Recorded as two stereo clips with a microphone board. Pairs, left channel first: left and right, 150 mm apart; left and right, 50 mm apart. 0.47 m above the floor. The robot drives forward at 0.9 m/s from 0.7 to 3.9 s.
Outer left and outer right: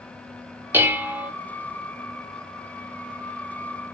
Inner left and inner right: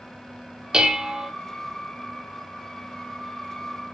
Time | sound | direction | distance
0.7 | dishes clattering | 15° right (ahead or behind) | 0.6 m